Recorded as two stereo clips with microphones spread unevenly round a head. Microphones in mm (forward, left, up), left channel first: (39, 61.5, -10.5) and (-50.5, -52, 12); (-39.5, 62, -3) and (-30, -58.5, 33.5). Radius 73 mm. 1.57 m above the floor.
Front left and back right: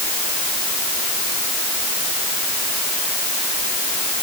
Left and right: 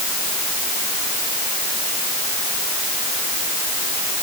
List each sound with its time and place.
Only background noise.